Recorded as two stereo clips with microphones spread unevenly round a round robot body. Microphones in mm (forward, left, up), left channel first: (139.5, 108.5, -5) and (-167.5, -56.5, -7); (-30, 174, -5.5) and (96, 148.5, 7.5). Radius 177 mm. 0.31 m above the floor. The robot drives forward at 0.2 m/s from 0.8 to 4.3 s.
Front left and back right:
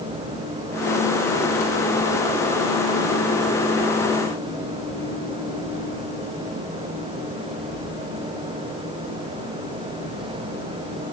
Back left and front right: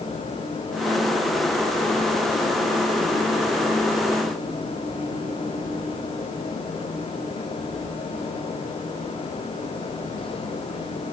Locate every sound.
Only background noise.